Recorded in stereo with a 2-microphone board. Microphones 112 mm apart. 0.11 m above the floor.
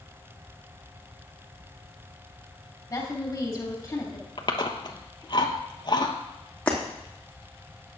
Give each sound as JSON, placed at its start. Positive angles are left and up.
{"t": 2.9, "sound": "a woman speaking", "side_deg": 30, "distance_m": 3.5}
{"t": 4.4, "sound": "chewing", "side_deg": 45, "distance_m": 1.1}
{"t": 6.7, "sound": "breaking glass", "side_deg": 10, "distance_m": 2.5}